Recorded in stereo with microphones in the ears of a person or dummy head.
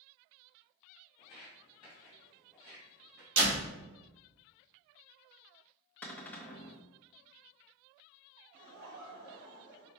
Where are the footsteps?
30° left (ahead or behind), 1.5 m; by 3.3 s 35° right (ahead or behind), 2.5 m.